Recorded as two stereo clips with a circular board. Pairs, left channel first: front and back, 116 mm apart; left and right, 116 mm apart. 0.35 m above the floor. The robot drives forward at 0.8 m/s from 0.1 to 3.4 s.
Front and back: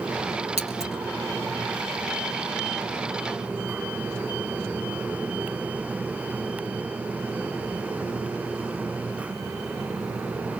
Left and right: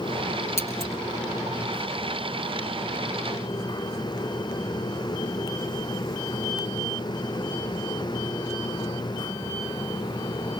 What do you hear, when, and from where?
0.6 s scissors: 155° left, 3 m